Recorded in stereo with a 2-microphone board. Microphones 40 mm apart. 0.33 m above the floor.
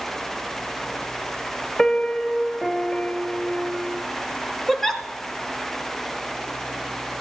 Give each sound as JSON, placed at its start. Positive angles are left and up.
{"t": 1.8, "sound": "a piano", "side_deg": 15, "distance_m": 0.6}
{"t": 4.7, "sound": "a giggle", "side_deg": 5, "distance_m": 0.8}